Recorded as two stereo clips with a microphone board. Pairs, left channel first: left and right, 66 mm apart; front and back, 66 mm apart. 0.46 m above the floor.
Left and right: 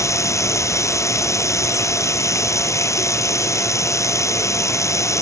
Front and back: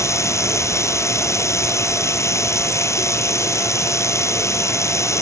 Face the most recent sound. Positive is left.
turn(degrees=45)